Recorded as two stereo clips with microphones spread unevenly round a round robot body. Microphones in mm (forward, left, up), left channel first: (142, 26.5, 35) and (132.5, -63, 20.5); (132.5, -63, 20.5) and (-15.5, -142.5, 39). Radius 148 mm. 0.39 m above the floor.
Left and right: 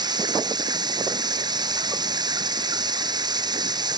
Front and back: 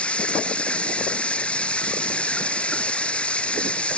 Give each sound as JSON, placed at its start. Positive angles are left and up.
{"t": 0.0, "sound": "running water", "azimuth_deg": -55}